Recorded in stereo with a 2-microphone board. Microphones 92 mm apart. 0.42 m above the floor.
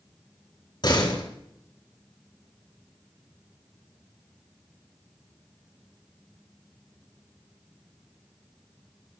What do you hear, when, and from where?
0.8 s a door slam: 55° left (ahead or behind), 4.5 m